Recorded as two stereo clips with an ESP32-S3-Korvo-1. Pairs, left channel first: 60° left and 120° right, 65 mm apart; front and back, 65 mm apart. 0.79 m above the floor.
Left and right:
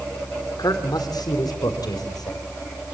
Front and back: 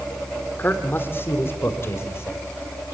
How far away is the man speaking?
About 2.0 m.